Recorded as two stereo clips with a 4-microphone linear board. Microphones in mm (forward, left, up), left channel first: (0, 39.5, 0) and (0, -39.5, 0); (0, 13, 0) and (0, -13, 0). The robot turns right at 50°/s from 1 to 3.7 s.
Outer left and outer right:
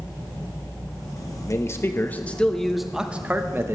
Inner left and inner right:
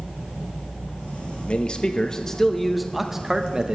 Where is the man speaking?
115° left, 0.9 m; by 3.8 s 135° right, 0.9 m.